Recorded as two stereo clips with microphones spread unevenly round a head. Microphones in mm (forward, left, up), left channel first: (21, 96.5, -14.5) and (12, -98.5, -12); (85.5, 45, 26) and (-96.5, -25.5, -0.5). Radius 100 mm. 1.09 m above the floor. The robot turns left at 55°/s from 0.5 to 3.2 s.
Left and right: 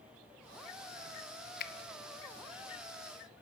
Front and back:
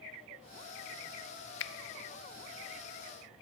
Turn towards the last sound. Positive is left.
turn(degrees=-40)